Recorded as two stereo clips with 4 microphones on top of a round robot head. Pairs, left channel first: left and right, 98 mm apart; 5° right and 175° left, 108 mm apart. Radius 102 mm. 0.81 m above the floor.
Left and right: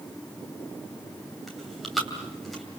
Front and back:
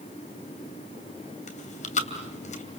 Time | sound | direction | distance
1.5 | chewing | straight ahead | 2.5 m